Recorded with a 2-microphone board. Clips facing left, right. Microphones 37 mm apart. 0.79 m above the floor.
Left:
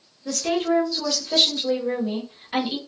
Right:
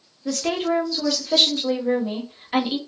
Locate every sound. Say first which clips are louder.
0.2 s a woman speaking: even; 20° right (ahead or behind), 1.0 m